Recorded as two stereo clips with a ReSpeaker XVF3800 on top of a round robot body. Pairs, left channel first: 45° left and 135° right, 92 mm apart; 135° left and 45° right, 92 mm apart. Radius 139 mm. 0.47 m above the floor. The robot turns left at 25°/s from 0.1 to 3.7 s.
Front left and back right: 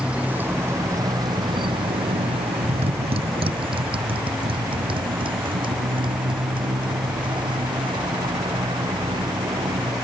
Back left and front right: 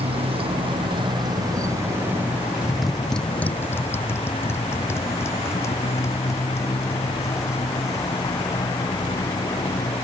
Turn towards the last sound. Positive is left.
turn(degrees=-170)